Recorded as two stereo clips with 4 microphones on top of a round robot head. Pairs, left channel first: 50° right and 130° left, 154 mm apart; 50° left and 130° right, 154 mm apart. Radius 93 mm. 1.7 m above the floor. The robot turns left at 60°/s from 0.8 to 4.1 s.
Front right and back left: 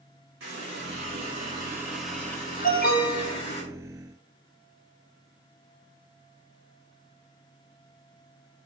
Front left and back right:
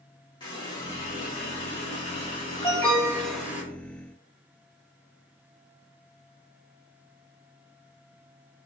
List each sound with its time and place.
0.4 s a running tap: 115° left, 2 m; by 3.6 s 55° right, 2 m
2.6 s an alarm: 15° right, 1.2 m; by 3.4 s 60° right, 1.2 m